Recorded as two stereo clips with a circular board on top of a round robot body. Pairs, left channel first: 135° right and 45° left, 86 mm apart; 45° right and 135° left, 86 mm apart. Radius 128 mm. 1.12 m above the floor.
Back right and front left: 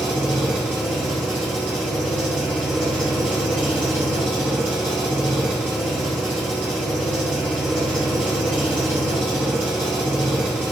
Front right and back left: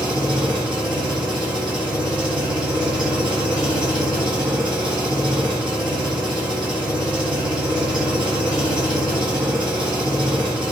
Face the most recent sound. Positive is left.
turn(degrees=105)